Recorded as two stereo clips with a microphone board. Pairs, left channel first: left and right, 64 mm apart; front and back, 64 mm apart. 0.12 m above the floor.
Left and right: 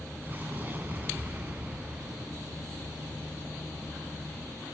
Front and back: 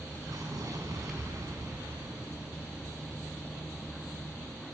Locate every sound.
0.2 s an explosion: 150° right, 7.5 m